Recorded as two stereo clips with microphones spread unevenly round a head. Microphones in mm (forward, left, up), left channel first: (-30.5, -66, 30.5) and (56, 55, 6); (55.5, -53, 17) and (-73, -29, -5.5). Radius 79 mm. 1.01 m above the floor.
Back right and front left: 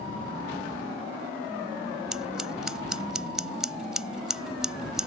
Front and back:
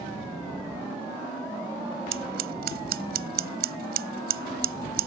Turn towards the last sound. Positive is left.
turn(degrees=140)